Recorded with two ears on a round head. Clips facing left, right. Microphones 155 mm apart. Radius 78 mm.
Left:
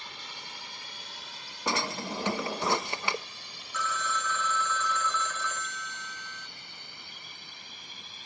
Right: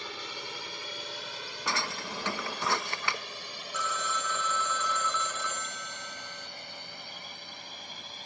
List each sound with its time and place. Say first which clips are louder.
0.0 s a drone: right 6 dB; 65° right (ahead or behind); by 8.3 s 40° right (ahead or behind)
1.7 s a drawer: left 4 dB; 20° left (ahead or behind)
3.7 s a phone ringing: left 1 dB; 10° right (ahead or behind)